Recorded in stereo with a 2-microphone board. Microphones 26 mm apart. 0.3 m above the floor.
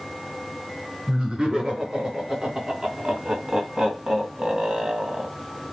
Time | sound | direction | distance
1.1 | laughter | 35° right (ahead or behind) | 4 m